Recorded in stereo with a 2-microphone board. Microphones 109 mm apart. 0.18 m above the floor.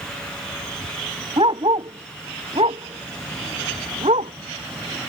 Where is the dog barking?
50° right (ahead or behind); by 4.3 s 75° right (ahead or behind).